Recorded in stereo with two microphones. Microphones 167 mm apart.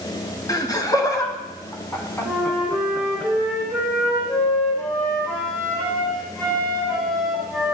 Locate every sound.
0.5 s laughter: 25° left (ahead or behind), 1.5 m; by 3.2 s 10° left (ahead or behind), 3 m
2.2 s a flute: 5° left (ahead or behind), 5.5 m